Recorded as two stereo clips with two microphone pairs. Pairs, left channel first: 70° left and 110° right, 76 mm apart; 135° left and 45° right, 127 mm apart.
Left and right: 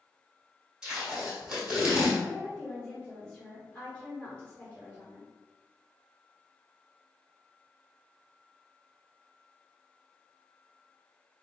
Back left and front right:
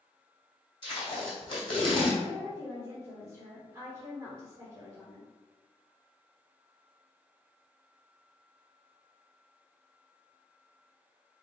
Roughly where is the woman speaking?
Ahead.